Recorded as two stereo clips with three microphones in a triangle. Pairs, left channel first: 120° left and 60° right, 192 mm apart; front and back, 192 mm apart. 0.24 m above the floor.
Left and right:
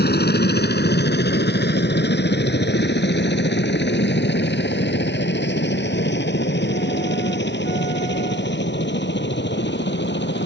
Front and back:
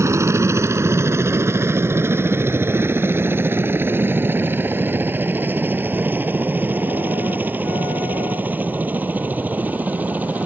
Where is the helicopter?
105° left; by 10.5 s 100° left.